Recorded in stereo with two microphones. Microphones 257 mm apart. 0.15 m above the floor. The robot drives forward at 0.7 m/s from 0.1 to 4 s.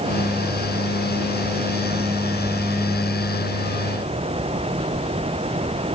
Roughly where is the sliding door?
No sliding door in this recording.